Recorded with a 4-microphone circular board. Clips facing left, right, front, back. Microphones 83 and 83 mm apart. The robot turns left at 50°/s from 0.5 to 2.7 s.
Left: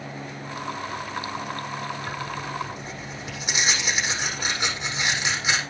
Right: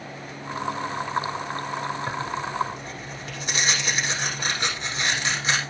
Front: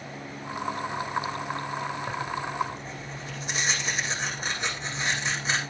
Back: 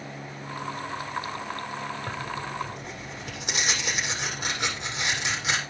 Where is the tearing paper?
165° right, 7.5 m; by 5.6 s 165° left, 7.5 m.